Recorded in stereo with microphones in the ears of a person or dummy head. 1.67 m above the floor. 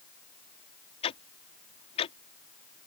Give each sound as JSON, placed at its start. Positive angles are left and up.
{"t": 1.0, "sound": "ticking", "side_deg": 35}